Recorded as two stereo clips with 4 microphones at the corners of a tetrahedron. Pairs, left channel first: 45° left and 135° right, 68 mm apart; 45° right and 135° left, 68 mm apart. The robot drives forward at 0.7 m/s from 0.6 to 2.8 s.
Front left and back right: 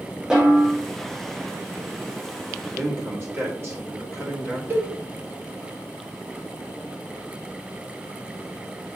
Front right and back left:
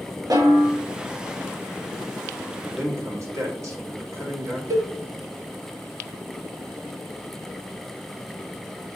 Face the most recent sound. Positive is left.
turn(degrees=170)